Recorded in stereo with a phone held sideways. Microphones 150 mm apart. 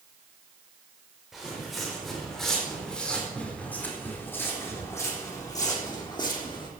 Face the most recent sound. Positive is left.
turn(degrees=35)  # may be behind; listen again after turning